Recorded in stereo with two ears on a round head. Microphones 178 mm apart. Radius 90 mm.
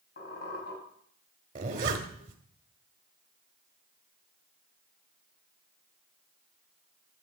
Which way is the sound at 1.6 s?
45° right (ahead or behind).